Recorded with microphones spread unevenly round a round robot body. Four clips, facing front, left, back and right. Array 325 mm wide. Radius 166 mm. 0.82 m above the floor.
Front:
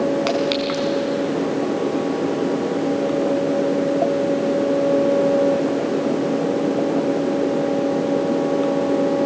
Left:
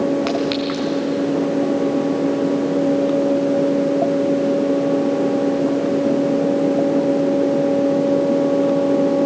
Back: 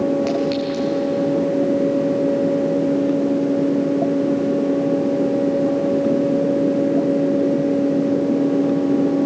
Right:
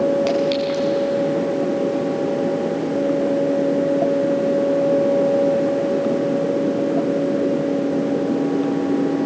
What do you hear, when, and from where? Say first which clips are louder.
0.3 s a clink: right 1 dB, even; 40° left, 5.5 m